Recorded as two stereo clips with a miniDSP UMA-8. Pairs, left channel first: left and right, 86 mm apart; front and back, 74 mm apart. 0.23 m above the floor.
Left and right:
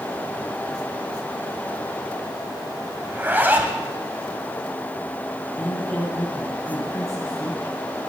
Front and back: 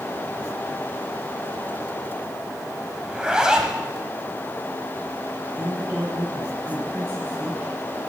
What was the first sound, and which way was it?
A zipper, 110° right.